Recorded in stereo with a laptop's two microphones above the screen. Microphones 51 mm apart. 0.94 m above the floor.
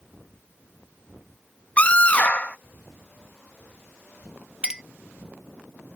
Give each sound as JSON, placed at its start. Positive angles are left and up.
{"t": 1.8, "sound": "a scream", "side_deg": 30}
{"t": 4.6, "sound": "a clink", "side_deg": -15}